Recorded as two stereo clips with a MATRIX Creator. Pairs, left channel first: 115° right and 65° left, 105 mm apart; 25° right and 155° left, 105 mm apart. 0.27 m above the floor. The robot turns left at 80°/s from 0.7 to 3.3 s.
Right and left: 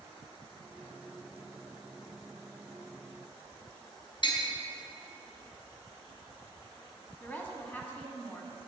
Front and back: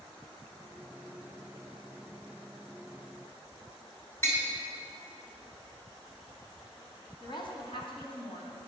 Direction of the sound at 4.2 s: 85° right.